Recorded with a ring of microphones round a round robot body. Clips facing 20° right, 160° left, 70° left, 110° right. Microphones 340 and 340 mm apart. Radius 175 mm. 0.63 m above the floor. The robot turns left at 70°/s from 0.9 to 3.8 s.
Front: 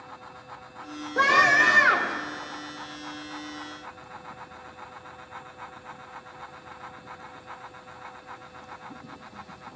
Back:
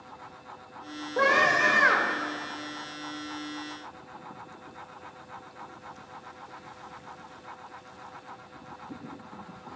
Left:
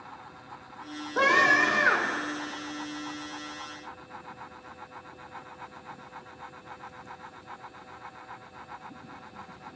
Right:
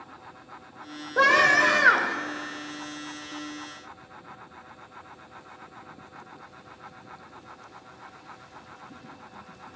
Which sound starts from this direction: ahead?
A scream, at 1.2 s.